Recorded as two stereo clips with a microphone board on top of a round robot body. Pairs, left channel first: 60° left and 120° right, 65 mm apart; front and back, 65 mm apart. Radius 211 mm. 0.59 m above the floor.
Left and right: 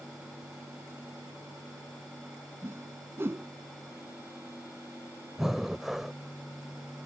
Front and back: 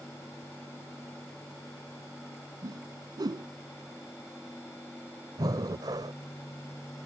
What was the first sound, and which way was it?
A whoosh, 175° right.